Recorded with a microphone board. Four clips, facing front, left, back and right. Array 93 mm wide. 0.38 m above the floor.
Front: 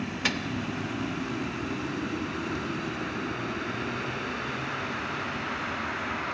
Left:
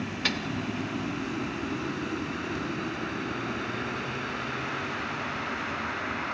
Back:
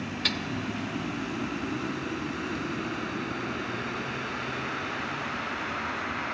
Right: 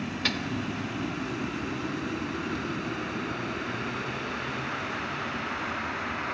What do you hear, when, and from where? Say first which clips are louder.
0.2 s a microwave: left 1 dB, front 4 dB; 5° left, 0.6 m